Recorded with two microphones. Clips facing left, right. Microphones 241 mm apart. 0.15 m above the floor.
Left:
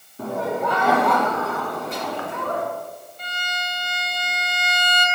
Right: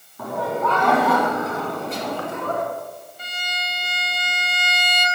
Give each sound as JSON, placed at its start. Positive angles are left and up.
{"t": 0.2, "sound": "laughter", "side_deg": 30, "distance_m": 1.4}
{"t": 3.2, "sound": "a violin", "side_deg": -10, "distance_m": 1.3}